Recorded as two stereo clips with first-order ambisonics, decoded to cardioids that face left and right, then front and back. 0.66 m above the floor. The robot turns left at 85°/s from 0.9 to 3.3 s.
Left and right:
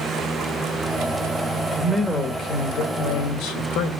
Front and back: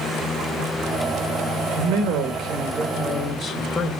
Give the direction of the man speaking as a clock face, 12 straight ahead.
5 o'clock.